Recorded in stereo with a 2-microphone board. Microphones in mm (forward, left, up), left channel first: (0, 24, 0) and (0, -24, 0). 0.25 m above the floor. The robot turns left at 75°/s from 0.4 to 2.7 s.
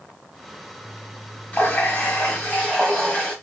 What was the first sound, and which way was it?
A running tap, 120° left.